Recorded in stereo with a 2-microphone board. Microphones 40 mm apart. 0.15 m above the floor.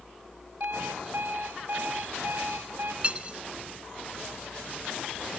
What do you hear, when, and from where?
0.6 s an alarm clock: 50° right (ahead or behind), 6.5 m
3.0 s cutlery clinking: 30° right (ahead or behind), 0.8 m